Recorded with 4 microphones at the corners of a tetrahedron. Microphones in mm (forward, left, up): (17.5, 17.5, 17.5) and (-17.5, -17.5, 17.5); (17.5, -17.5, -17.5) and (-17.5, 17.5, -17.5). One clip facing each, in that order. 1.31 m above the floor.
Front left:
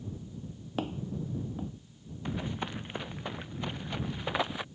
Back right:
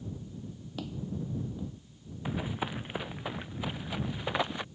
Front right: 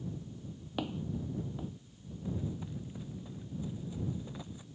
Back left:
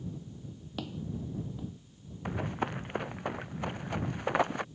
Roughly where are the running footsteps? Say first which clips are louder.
Back right 1 dB, back left 6 dB; behind left.